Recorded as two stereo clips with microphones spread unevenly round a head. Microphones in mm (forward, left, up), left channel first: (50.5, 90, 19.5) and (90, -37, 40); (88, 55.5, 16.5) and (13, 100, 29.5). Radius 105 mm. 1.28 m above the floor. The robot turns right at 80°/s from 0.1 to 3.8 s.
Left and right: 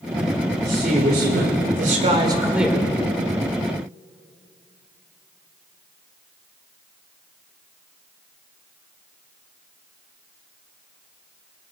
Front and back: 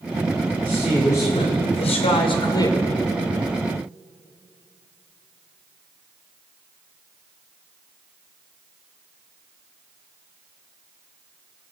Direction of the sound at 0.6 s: 150° right.